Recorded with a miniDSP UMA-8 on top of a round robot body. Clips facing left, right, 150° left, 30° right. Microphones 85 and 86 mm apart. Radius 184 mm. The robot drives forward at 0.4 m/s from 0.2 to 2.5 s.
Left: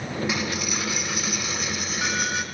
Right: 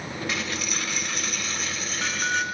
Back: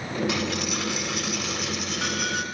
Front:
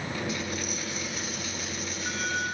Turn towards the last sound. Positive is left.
turn(degrees=170)